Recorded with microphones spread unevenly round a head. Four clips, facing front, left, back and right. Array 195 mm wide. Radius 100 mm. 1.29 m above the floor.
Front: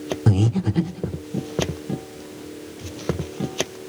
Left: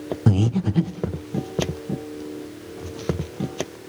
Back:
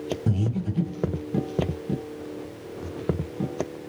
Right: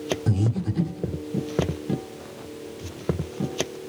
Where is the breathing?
40° left, 0.9 m.